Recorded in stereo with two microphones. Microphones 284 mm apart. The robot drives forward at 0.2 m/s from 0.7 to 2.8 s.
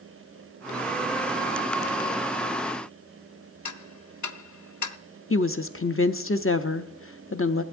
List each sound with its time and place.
3.6 s ticking: 80° left, 0.5 m
5.3 s a woman speaking: 50° left (ahead or behind), 0.6 m